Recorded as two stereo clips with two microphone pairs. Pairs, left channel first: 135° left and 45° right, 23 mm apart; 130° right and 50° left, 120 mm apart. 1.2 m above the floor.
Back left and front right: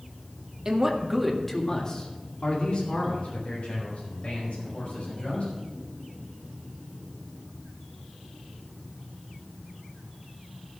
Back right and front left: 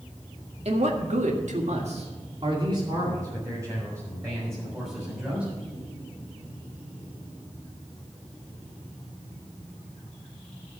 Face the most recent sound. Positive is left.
turn(degrees=125)